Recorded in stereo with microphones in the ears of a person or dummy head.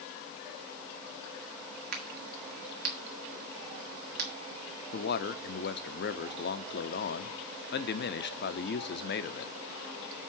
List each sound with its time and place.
1.9 s a crack: 50° right (ahead or behind), 1.9 m
4.9 s a man speaking: 55° left (ahead or behind), 0.7 m